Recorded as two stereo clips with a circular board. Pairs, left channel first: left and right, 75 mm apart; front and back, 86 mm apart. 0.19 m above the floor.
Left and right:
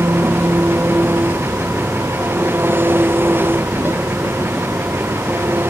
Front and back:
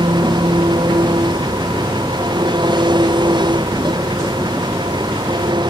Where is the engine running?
150° right.